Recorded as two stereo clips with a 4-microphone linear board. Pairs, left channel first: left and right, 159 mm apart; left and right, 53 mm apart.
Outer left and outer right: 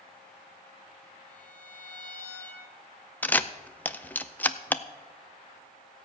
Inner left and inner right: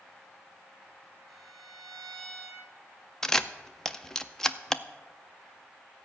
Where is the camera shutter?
10° left (ahead or behind), 0.5 m.